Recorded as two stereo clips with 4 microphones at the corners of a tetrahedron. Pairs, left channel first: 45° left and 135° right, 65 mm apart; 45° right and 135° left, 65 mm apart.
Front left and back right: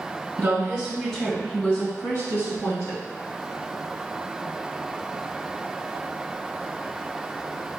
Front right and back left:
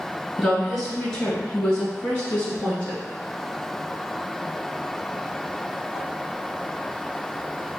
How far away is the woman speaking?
About 1.6 m.